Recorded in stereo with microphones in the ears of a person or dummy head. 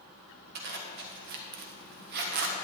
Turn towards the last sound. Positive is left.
turn(degrees=-55)  # may be behind; listen again after turning